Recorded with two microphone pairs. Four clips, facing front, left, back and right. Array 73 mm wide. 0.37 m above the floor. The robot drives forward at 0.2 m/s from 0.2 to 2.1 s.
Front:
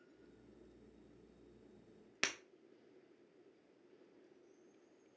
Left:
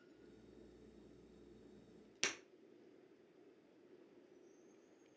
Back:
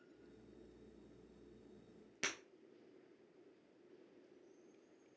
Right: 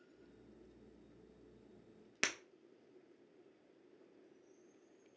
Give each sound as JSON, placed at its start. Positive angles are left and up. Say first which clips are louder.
{"t": 2.2, "sound": "breaking glass", "louder": "right 4 dB, front 2 dB", "azimuth_deg": -50, "distance_m": 0.5}